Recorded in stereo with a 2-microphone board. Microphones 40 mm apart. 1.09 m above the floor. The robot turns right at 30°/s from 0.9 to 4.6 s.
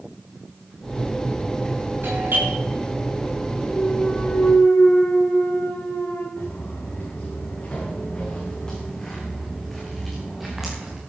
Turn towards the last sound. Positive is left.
turn(degrees=-15)  # may be behind; listen again after turning